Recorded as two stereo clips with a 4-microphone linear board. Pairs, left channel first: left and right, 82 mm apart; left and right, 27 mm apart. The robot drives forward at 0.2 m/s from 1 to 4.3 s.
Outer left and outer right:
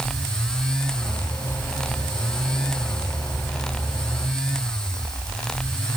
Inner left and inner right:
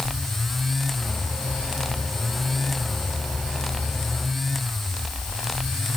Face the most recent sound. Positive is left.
No sound to turn to.